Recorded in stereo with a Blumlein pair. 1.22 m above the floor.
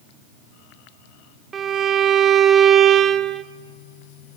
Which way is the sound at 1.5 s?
20° right.